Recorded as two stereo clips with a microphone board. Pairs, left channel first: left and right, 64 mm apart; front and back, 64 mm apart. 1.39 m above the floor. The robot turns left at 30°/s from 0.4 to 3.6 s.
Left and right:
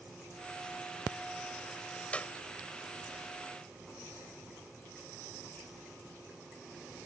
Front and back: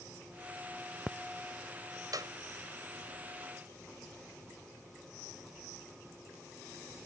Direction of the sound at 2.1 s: 160° left.